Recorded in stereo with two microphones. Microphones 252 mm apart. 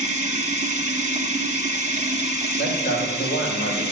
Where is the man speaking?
45° left (ahead or behind), 4.5 m.